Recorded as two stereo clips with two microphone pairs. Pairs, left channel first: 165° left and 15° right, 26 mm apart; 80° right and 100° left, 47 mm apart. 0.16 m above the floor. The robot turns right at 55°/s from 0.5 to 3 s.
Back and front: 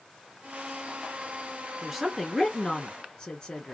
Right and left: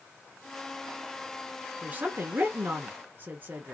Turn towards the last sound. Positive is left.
turn(degrees=120)